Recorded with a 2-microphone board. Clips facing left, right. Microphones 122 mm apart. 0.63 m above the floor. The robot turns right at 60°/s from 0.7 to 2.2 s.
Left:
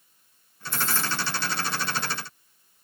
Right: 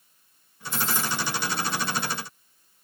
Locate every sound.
0.7 s keys jangling: 50° left (ahead or behind), 1.5 m; by 1.2 s 25° left (ahead or behind), 1.5 m